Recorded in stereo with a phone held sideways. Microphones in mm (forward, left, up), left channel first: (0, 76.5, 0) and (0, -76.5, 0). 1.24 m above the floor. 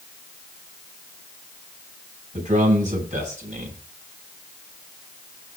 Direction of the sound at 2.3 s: 50° right (ahead or behind).